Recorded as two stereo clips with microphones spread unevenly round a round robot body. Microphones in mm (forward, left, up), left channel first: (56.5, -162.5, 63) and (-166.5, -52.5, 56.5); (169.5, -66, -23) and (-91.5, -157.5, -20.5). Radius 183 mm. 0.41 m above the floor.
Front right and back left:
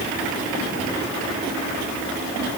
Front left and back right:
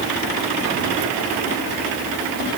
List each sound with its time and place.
Only background noise.